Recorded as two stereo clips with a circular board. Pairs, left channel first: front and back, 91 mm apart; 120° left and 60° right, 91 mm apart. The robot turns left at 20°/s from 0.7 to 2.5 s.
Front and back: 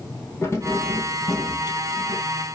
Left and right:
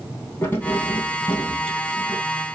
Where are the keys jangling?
60° left, 3 m; by 2.2 s 25° left, 3 m.